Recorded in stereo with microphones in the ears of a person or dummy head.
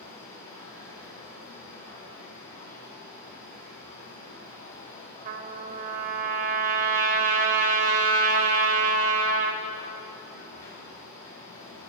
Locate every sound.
0.0 s a machine running: 20° left (ahead or behind), 5 m
5.2 s a trumpet: 40° right (ahead or behind), 1.1 m